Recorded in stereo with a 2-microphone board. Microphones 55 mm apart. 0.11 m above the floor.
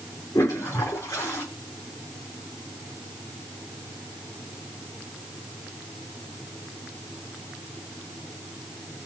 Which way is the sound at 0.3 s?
80° left.